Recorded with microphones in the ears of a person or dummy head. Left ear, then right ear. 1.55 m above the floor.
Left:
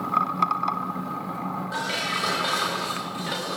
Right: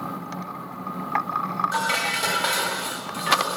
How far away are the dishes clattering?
About 5.5 m.